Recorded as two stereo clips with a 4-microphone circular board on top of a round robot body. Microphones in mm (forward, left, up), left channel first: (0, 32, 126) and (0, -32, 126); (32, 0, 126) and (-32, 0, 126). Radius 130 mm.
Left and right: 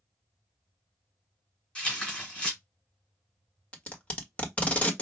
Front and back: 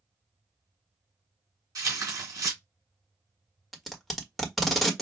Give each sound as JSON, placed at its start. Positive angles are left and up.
{"t": 1.8, "sound": "tearing paper", "azimuth_deg": 160, "distance_m": 2.5}
{"t": 3.7, "sound": "tape being pulled", "azimuth_deg": 90, "distance_m": 1.4}